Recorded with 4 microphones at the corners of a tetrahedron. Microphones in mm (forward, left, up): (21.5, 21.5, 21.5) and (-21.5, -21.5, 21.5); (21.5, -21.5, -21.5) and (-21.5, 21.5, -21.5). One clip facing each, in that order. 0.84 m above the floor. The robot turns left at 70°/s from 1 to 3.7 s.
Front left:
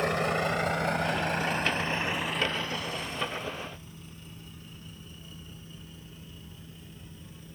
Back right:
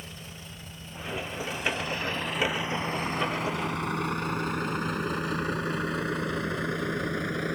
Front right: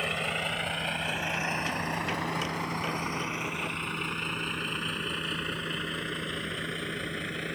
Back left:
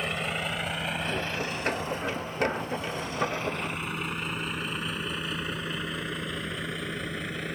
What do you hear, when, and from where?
0.0 s a vehicle: 45° left; by 7.6 s 135° right